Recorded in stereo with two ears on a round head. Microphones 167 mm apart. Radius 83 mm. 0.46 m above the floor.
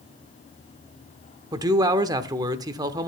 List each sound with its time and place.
1.5 s a man speaking: 20° right (ahead or behind), 0.8 m